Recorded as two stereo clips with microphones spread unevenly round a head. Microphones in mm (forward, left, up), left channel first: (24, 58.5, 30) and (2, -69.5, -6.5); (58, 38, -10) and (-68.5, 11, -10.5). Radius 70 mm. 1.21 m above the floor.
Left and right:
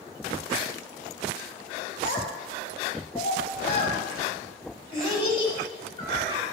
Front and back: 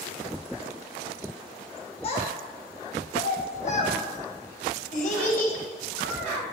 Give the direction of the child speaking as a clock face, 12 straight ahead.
10 o'clock.